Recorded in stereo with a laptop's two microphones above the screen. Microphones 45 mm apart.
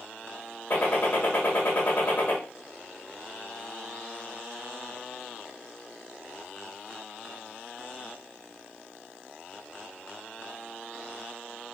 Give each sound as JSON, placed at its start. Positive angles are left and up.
{"t": 0.7, "sound": "a gunshot", "side_deg": 40, "distance_m": 1.3}